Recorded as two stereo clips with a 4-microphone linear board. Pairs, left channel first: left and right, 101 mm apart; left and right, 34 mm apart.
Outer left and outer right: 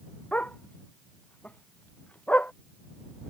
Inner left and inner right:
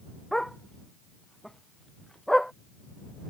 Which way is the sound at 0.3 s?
10° left (ahead or behind).